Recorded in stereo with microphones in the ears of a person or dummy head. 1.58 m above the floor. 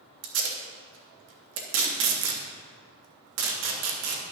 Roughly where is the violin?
No violin in this recording.